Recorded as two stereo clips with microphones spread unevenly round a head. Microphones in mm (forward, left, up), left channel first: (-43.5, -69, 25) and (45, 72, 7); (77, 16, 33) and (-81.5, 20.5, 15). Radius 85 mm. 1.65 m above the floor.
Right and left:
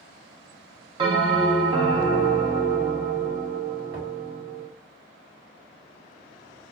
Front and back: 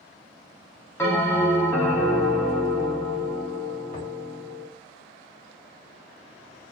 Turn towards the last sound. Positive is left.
turn(degrees=30)